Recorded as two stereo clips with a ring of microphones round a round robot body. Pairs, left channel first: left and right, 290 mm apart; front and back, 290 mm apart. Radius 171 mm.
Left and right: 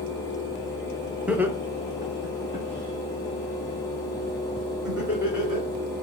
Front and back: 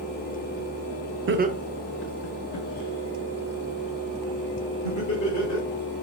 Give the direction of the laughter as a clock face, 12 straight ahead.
6 o'clock.